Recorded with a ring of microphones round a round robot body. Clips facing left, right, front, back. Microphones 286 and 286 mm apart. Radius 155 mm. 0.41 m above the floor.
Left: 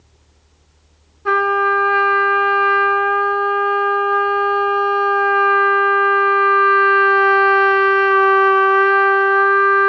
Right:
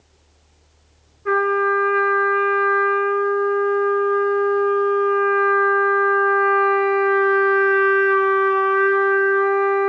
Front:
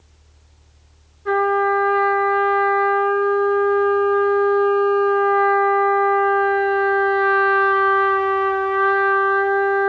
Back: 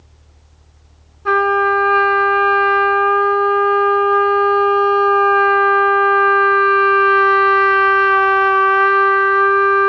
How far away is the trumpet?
About 1.1 m.